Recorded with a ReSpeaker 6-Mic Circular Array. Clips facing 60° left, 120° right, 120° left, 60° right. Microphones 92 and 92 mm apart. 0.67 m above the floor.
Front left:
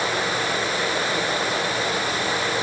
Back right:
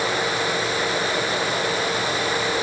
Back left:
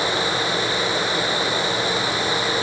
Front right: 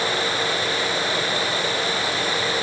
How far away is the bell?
I don't hear a bell.